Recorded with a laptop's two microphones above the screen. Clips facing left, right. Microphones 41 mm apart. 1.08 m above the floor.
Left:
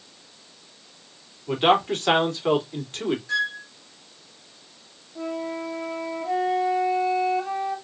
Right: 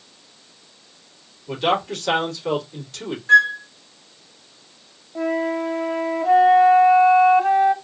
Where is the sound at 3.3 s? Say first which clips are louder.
Right 12 dB; 45° right (ahead or behind), 1.0 m.